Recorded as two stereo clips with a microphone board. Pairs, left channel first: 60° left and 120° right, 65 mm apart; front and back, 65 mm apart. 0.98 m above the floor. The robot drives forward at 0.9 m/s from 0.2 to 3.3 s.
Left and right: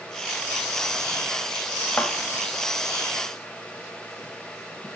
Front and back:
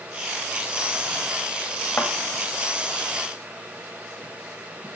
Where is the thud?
25° left, 0.8 m; by 2.1 s 30° left, 0.8 m.